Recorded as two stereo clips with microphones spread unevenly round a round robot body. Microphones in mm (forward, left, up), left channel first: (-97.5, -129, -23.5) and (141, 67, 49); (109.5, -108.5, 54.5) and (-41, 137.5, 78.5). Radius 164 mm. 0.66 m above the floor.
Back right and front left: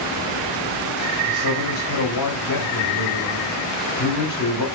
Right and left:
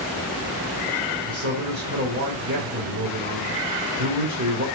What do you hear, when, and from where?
1.2 s a man speaking: straight behind, 3 m